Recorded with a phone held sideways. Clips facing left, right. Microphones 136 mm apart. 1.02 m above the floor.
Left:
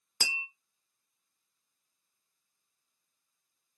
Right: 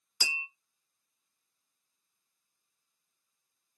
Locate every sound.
0.2 s tapping: 50° left (ahead or behind), 1.5 m